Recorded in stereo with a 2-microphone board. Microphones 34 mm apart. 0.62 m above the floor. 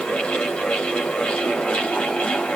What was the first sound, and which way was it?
Only background noise.